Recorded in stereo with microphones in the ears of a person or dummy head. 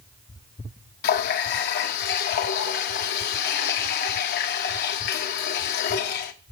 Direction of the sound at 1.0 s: 65° left (ahead or behind).